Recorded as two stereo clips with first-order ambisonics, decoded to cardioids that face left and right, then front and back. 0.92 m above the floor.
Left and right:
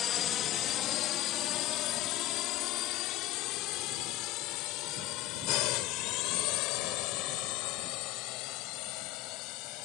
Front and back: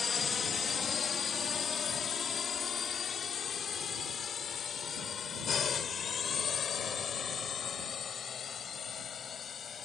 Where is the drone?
60° left; by 9.9 s 65° left.